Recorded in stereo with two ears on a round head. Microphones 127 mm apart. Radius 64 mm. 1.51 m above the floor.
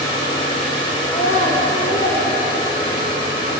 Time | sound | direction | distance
1.1 | a child speaking | 50° left (ahead or behind) | 0.6 m